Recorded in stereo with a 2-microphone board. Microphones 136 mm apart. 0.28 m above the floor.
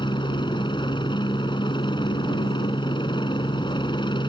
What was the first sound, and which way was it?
A helicopter, 35° left (ahead or behind).